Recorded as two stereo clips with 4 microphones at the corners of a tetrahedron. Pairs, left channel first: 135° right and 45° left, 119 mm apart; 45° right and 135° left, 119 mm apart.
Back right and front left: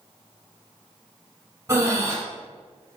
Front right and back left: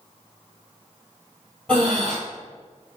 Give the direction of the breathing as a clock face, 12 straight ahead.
11 o'clock.